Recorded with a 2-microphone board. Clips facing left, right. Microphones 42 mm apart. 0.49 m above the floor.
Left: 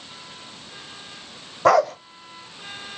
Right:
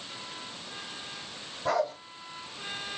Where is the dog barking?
70° left (ahead or behind), 0.7 m.